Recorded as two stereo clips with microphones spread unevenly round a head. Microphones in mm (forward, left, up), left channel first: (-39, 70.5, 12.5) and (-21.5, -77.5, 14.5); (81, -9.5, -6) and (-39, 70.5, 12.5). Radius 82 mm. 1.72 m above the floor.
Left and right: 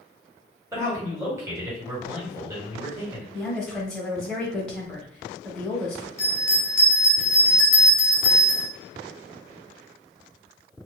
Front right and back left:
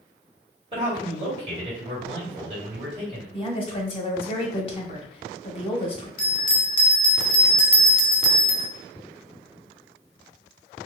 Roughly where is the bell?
Ahead.